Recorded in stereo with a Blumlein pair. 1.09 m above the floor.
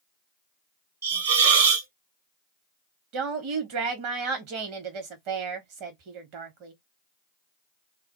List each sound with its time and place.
1.0 s a hiss: 60° right, 0.7 m
3.1 s a woman speaking: 45° right, 0.9 m